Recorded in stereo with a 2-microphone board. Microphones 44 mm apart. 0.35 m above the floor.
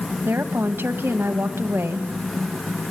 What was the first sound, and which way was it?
A woman speaking, 60° right (ahead or behind).